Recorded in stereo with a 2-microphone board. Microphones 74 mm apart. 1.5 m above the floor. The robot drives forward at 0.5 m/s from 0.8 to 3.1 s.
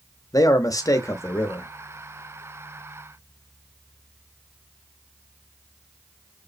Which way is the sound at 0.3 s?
50° left (ahead or behind).